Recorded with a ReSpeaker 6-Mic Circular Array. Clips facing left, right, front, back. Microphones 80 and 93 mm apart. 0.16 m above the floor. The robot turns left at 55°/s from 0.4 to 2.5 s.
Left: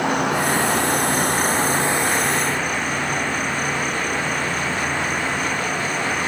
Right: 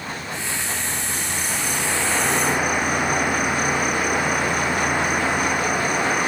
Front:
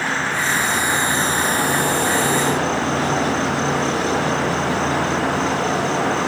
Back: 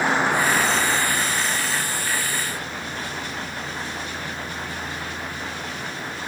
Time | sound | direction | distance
0.0 | an insect | 105° left | ?